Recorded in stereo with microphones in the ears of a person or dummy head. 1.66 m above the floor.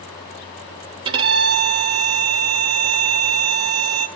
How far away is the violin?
About 0.8 m.